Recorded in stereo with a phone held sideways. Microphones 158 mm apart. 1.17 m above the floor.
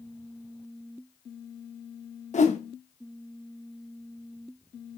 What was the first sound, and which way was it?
A whoosh, 50° left (ahead or behind).